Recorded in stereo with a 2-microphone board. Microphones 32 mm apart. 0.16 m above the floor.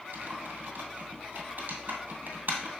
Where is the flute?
I don't hear a flute.